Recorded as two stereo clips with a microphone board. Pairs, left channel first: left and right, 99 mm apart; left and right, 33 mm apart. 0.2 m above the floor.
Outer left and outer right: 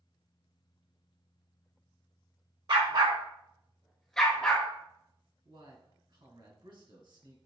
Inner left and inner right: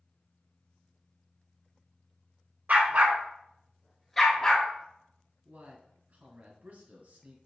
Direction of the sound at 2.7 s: 60° right (ahead or behind).